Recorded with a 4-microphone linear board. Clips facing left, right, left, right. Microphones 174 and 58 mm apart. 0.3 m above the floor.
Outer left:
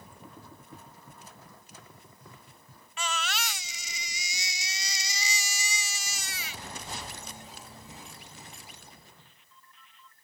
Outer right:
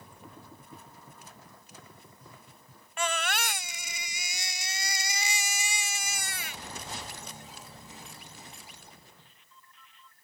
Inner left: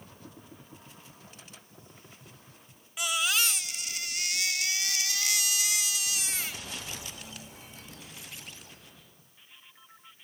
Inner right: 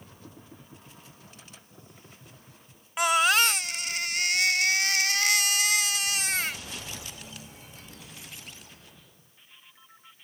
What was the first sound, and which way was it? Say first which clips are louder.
A baby crying: outer right 3 dB, inner right 8 dB; 50° right (ahead or behind).